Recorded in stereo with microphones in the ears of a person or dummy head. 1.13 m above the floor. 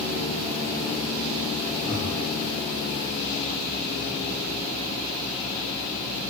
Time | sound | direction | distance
1.8 | breathing | 25° left (ahead or behind) | 1.8 m